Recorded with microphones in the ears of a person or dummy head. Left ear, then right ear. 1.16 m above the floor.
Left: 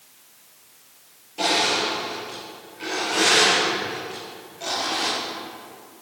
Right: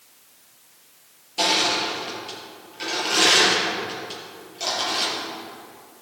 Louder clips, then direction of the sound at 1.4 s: Even; 40° right (ahead or behind).